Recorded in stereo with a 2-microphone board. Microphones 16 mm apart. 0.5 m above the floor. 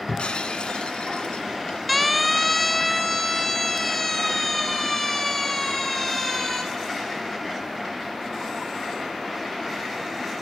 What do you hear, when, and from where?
0.1 s breaking glass: 80° left, 2.5 m
1.9 s a siren: 5° left (ahead or behind), 2.5 m; by 6.6 s 20° left (ahead or behind), 7 m